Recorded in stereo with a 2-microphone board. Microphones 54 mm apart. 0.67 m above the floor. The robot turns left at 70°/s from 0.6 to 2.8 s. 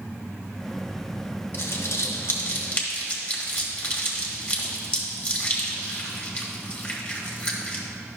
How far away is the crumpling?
About 1.4 m.